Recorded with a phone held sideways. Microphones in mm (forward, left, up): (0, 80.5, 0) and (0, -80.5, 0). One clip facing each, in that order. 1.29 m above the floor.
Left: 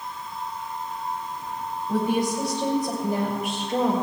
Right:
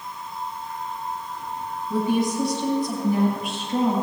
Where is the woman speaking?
85° left, 4.5 m.